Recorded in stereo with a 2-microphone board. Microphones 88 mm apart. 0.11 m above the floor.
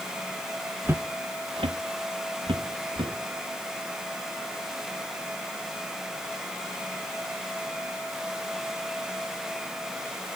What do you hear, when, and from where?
0.8 s footsteps: 25° right (ahead or behind), 0.5 m; by 3.1 s 65° right (ahead or behind), 1.8 m